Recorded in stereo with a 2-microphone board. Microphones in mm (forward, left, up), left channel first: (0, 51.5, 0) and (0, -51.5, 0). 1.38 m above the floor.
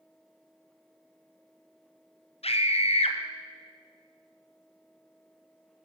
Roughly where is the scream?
Left.